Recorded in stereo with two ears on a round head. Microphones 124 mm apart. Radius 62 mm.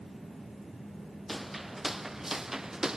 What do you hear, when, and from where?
1.3 s footsteps: centre (ahead or behind); by 3.0 s 5° right (ahead or behind)